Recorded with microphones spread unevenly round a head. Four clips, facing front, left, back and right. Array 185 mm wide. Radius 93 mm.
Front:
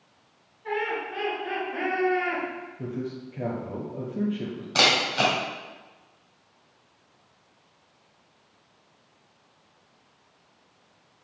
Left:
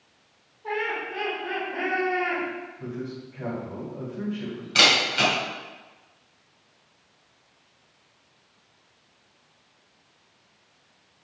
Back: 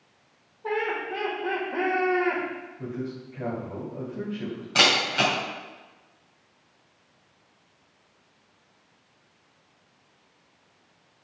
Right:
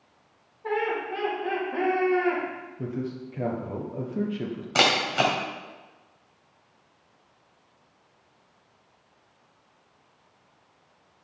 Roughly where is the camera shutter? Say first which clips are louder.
Right 1 dB, even; right.